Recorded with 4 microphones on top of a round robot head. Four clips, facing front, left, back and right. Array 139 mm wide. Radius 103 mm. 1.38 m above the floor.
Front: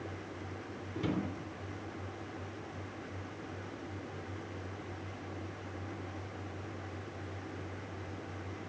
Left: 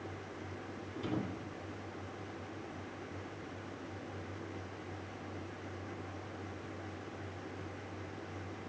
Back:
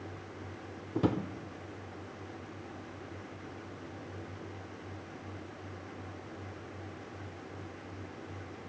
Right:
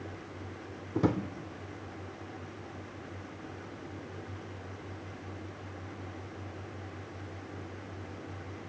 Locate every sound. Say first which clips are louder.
0.9 s a drawer: right 9 dB, back 5 dB; 125° right, 3 m